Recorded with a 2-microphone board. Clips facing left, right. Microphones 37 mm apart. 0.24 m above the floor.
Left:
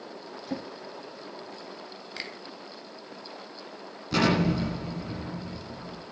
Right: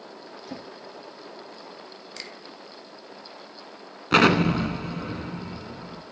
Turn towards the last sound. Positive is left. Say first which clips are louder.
# right 6 dB
turn(degrees=-65)  # may be behind; listen again after turning